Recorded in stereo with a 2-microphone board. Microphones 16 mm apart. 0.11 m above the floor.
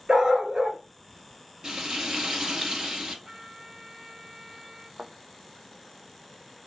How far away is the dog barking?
About 0.8 m.